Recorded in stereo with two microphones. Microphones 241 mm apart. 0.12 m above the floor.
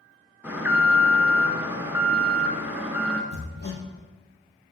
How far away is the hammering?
About 2 m.